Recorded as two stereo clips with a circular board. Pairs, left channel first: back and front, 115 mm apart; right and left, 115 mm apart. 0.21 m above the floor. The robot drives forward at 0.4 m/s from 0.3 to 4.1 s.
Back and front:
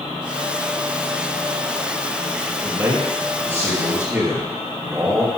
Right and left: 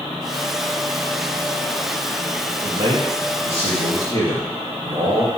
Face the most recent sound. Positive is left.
turn(degrees=75)